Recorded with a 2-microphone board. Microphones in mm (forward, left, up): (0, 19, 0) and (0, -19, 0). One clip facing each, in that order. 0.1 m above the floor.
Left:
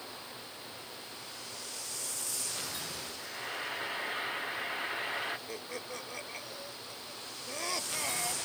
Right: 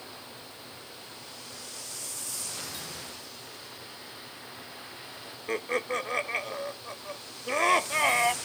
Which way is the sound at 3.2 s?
45° left (ahead or behind).